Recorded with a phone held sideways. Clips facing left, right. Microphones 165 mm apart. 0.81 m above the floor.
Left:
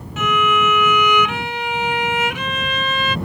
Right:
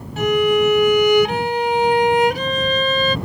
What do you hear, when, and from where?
0.2 s a violin: 35° right (ahead or behind)